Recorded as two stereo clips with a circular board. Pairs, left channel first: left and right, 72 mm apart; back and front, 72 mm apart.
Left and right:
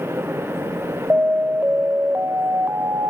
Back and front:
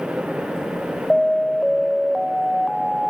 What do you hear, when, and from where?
1.1 s an alarm: 90° right, 0.6 m